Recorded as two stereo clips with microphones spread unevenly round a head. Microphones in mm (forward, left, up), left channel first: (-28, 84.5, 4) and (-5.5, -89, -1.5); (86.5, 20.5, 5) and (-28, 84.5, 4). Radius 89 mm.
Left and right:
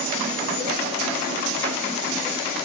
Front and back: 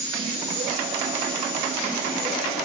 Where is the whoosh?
No whoosh in this recording.